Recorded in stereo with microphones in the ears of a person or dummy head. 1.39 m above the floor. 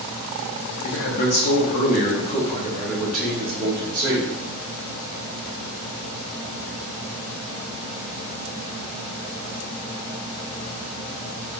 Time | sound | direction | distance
0.8 | a man speaking | 75° left (ahead or behind) | 1.2 m